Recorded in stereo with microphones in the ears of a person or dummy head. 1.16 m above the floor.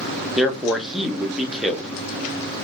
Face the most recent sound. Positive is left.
turn(degrees=0)  # may be behind; listen again after turning